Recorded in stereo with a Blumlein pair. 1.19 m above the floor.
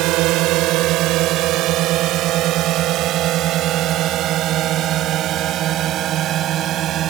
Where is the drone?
40° right; by 7.1 s 30° right.